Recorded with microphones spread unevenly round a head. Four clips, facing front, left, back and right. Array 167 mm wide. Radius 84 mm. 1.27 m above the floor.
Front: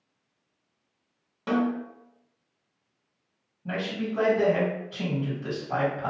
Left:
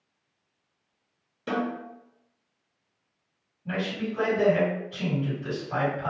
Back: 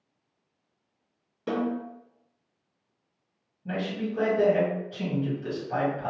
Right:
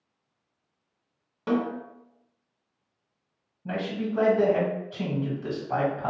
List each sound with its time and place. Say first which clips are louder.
1.5 s a snare drum: right 3 dB, front 3 dB; 55° right, 1.8 m
3.6 s a man speaking: right 1 dB, even; 50° right, 1.6 m